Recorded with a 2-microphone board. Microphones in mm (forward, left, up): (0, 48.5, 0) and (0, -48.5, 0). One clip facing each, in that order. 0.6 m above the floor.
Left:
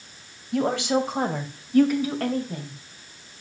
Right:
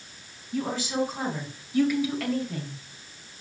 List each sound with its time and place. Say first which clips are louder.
0.5 s a woman speaking: left 6 dB; 80° left, 3 m; by 2.8 s 20° left (ahead or behind), 3 m